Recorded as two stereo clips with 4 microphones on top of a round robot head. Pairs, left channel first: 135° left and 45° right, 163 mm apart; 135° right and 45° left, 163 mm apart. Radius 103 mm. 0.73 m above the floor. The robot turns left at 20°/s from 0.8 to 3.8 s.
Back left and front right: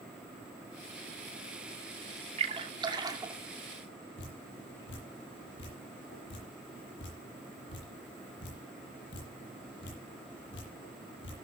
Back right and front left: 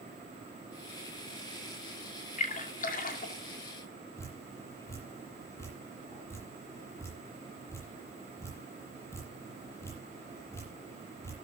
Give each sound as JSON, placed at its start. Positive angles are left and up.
{"t": 2.4, "sound": "a splash", "azimuth_deg": -95, "distance_m": 2.5}
{"t": 4.2, "sound": "dripping", "azimuth_deg": 150, "distance_m": 8.5}